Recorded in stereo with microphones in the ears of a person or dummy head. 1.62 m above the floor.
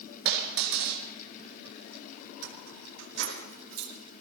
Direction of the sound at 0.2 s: 70° right (ahead or behind).